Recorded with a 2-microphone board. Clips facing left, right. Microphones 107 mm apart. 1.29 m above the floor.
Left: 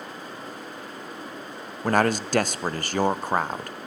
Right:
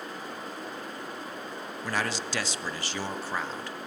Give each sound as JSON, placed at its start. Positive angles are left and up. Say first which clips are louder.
{"t": 1.8, "sound": "a man speaking", "louder": "left 10 dB", "side_deg": 50, "distance_m": 0.5}